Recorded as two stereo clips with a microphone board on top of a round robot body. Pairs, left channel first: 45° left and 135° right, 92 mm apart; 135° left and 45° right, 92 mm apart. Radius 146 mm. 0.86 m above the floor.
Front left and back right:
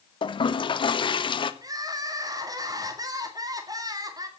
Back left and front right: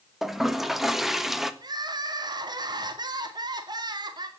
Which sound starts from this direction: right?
Crying, at 1.6 s.